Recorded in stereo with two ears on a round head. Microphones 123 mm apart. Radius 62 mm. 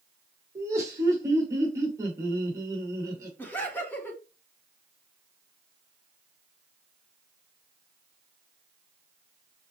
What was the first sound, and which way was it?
Laughter, 25° right (ahead or behind).